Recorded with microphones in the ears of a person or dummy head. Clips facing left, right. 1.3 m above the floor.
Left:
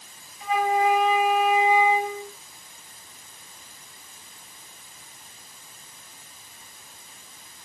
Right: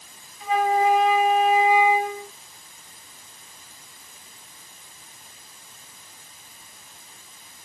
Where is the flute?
45° right (ahead or behind), 4.5 m.